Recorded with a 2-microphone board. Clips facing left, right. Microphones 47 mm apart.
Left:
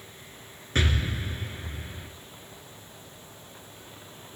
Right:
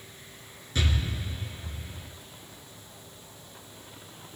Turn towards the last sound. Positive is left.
turn(degrees=50)  # may be behind; listen again after turning